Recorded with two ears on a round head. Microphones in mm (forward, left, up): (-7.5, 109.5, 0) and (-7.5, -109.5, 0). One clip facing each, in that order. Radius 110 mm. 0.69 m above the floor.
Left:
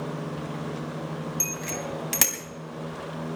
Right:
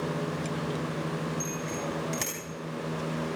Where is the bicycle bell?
85° left, 3.5 m.